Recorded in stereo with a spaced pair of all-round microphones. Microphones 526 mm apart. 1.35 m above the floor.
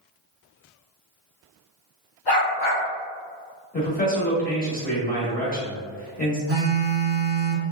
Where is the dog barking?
45° left (ahead or behind), 1.6 m.